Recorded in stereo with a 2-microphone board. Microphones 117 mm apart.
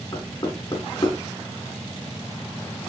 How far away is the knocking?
About 3.5 m.